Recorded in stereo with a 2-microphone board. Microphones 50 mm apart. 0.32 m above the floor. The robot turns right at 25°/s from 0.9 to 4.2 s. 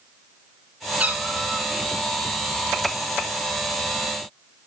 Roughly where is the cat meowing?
Right.